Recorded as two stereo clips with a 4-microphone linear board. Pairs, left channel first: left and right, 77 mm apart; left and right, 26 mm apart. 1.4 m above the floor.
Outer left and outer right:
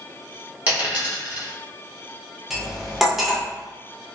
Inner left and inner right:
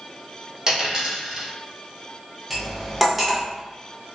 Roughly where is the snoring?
I don't hear snoring.